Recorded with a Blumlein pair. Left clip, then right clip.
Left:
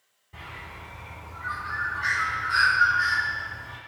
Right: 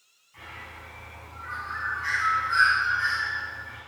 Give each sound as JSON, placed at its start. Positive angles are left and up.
{"t": 0.3, "sound": "a bird", "azimuth_deg": 45, "distance_m": 1.7}